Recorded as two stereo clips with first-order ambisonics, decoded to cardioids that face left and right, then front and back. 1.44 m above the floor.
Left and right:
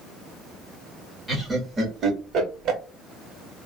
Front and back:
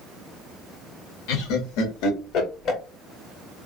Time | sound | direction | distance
1.3 | laughter | 5° right | 1.4 m